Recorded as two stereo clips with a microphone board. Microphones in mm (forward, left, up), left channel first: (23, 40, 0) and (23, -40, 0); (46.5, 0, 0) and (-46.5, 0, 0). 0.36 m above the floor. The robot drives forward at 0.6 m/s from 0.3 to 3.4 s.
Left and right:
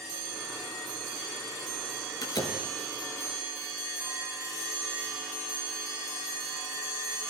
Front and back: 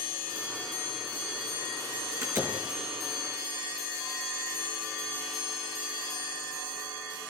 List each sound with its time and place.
2.2 s a door slam: 120° left, 4.5 m